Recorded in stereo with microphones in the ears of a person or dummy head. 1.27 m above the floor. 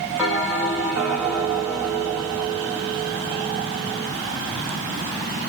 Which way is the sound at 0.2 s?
5° right (ahead or behind).